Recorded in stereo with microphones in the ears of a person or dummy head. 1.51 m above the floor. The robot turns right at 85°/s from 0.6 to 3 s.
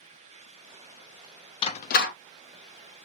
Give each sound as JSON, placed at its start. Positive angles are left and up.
{"t": 1.6, "sound": "a door slam", "side_deg": 20, "distance_m": 0.5}